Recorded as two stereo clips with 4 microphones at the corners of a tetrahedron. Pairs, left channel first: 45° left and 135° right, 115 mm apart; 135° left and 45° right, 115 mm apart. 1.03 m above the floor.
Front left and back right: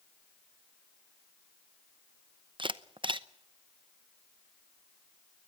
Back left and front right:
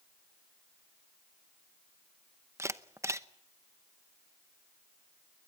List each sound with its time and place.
2.6 s a camera shutter: 105° right, 0.8 m